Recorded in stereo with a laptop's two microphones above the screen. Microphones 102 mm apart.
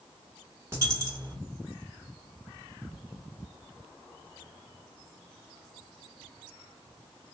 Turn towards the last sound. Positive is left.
turn(degrees=-25)  # may be behind; listen again after turning